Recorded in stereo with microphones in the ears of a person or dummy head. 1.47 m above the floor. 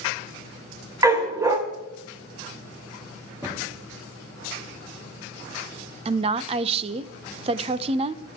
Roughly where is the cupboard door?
Centre.